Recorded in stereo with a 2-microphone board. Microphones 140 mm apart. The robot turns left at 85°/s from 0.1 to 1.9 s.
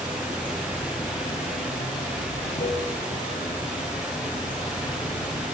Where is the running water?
140° right, 7 m; by 5.5 s 65° left, 7 m.